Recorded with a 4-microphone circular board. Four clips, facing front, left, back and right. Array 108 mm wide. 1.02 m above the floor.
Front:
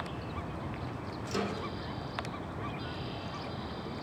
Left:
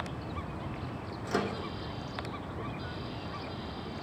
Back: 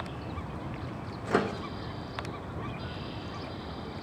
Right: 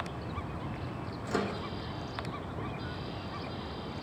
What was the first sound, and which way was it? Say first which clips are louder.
A microwave: left 1 dB, back 7 dB; 175° left.